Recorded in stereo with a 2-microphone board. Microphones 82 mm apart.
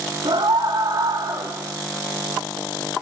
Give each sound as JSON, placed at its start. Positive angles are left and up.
{"t": 0.2, "sound": "a scream", "side_deg": -65, "distance_m": 3.0}